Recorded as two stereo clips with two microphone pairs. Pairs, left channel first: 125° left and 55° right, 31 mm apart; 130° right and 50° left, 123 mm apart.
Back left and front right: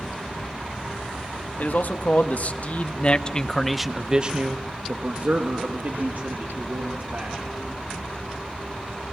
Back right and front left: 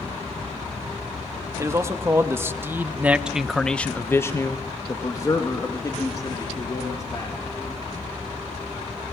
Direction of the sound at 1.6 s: 115° left.